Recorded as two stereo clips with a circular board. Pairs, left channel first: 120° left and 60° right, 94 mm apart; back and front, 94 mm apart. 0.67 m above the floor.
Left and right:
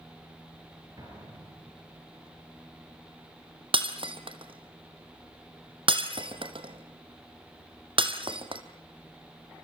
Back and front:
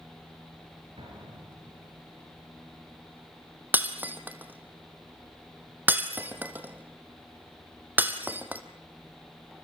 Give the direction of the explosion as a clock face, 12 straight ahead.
12 o'clock.